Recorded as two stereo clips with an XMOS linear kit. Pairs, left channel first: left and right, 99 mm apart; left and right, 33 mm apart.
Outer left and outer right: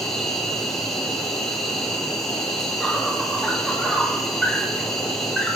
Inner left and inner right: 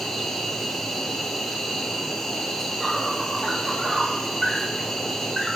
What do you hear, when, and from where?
0.0 s an insect: centre (ahead or behind), 1.1 m